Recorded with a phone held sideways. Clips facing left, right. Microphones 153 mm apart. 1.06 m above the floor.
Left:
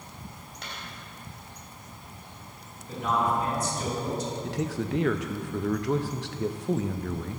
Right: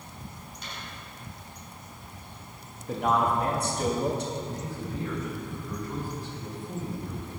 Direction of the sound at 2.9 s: 60° right (ahead or behind).